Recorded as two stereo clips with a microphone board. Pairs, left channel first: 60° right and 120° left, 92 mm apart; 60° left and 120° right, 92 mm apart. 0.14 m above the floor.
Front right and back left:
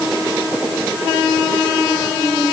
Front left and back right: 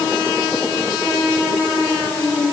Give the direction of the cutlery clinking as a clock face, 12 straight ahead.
No cutlery clinking in this recording.